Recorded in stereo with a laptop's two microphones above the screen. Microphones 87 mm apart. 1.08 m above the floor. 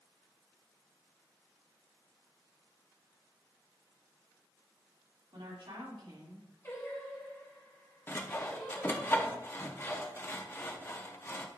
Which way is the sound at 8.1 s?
25° left (ahead or behind).